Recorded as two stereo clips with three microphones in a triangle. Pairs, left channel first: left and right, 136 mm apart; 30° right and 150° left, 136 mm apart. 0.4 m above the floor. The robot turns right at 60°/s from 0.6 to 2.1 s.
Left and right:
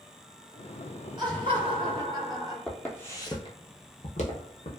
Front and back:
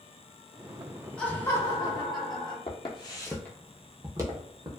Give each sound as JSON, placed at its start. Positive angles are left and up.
{"t": 1.2, "sound": "laughter", "azimuth_deg": -105, "distance_m": 0.9}
{"t": 2.7, "sound": "footsteps", "azimuth_deg": 5, "distance_m": 0.8}